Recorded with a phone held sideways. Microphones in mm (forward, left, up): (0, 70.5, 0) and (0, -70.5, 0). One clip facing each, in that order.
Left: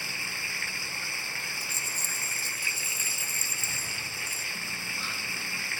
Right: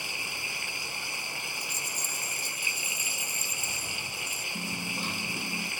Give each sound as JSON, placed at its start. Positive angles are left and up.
{"t": 0.0, "sound": "running water", "side_deg": -20}
{"t": 1.6, "sound": "a rattle", "side_deg": -15}
{"t": 4.5, "sound": "a dropped coin", "side_deg": -50}